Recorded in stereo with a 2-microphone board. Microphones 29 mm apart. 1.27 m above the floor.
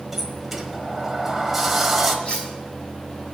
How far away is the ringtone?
I don't hear a ringtone.